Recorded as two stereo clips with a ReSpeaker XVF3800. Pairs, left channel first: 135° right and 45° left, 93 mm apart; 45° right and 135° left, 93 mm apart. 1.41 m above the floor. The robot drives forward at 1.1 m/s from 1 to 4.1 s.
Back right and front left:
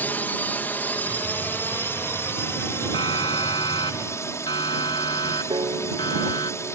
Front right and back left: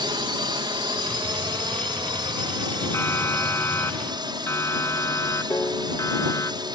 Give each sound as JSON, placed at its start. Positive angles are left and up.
{"t": 0.0, "sound": "a drone", "azimuth_deg": 160}
{"t": 2.9, "sound": "a siren", "azimuth_deg": -105}
{"t": 5.5, "sound": "a piano", "azimuth_deg": 15}